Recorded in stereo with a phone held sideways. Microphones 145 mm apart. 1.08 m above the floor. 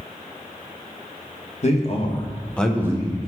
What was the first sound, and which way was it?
A man speaking, 50° left (ahead or behind).